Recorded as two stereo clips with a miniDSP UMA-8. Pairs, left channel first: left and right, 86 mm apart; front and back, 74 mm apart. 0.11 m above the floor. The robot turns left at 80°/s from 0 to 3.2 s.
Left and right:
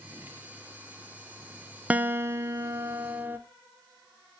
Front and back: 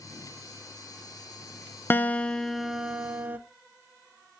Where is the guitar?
35° right, 0.5 m; by 3.4 s 140° right, 0.5 m.